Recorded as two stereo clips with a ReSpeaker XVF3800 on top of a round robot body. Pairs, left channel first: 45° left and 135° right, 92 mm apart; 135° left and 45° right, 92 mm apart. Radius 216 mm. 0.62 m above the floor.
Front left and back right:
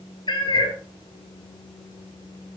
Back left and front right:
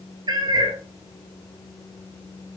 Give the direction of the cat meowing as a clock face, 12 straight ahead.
12 o'clock.